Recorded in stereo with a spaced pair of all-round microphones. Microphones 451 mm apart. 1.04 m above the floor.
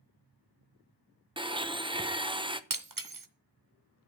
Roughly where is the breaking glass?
Right.